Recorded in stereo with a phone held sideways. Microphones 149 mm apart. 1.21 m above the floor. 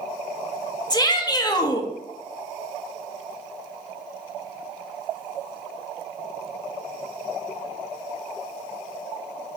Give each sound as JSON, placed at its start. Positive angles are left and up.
{"t": 0.9, "sound": "a shout", "side_deg": 30, "distance_m": 1.7}